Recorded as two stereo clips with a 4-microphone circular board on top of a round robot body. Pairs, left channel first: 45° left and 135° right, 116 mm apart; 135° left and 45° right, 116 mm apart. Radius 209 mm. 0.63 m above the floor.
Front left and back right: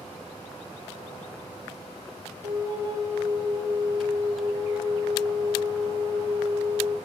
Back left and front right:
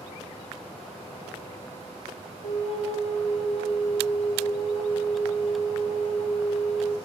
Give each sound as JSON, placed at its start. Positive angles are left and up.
{"t": 2.4, "sound": "a flute", "azimuth_deg": 170, "distance_m": 3.5}